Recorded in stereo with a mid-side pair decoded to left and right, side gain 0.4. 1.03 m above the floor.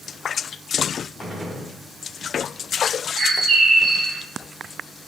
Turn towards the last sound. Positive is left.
turn(degrees=-55)